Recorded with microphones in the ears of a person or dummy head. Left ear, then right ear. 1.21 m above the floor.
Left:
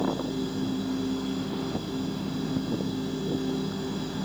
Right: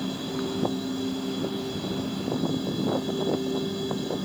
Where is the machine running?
25° right (ahead or behind), 2.0 m.